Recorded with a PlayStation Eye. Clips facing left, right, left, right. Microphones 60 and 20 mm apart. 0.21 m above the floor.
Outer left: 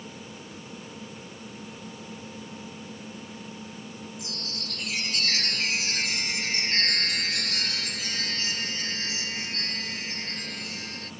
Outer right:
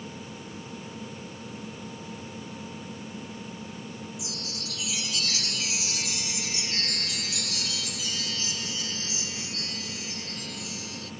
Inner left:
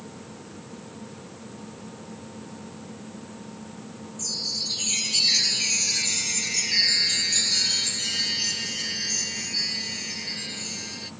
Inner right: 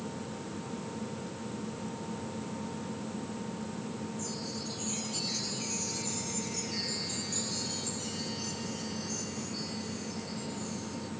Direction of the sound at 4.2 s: 50° left (ahead or behind).